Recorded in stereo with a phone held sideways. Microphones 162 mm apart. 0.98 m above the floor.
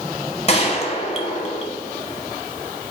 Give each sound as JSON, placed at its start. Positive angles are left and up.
{"t": 0.5, "sound": "a gunshot", "side_deg": 40, "distance_m": 1.1}